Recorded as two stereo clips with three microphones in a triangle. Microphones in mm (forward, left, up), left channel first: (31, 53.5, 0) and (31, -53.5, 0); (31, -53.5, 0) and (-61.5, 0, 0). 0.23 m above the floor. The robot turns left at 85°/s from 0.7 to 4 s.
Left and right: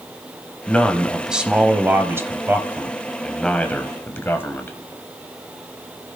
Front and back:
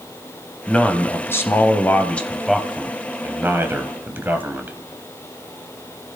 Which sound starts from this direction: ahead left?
A man speaking, at 0.7 s.